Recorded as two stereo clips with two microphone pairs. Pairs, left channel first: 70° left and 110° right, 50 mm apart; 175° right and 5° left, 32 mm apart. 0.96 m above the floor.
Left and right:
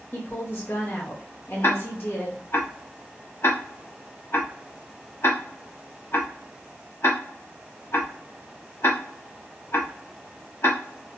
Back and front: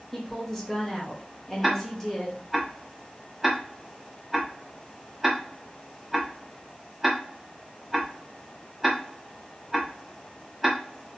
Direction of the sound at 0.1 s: 105° left.